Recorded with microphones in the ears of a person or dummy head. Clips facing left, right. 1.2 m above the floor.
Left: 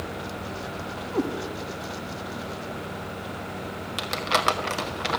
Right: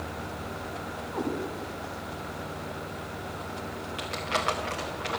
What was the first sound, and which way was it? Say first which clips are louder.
A cat meowing: left 5 dB; 50° left (ahead or behind).